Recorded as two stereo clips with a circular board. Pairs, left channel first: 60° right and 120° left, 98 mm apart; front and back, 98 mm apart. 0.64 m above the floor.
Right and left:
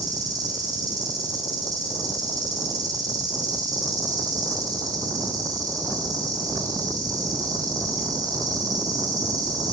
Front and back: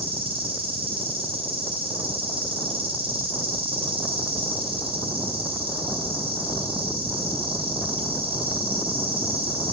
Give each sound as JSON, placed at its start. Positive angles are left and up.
{"t": 0.0, "sound": "an insect", "azimuth_deg": 170, "distance_m": 8.5}